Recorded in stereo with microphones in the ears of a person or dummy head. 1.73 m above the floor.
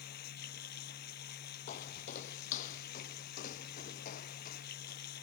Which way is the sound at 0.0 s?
60° left (ahead or behind).